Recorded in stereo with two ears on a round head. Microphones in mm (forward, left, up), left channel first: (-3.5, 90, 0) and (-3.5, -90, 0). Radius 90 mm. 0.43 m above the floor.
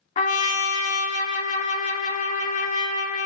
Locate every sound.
0.2 s a trumpet: 35° left (ahead or behind), 0.5 m